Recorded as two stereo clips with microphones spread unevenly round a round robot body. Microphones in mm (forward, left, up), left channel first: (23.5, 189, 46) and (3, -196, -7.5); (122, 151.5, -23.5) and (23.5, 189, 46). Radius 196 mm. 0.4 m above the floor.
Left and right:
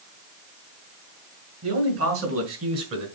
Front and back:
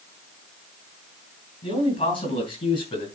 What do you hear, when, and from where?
1.6 s a man speaking: 40° right, 5 m